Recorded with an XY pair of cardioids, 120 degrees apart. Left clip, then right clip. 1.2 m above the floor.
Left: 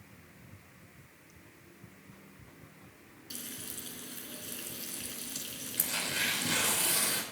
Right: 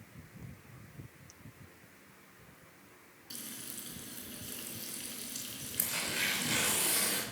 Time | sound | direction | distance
3.3 | frying | 15° left | 3.5 m
5.8 | tearing paper | 15° left | 5.5 m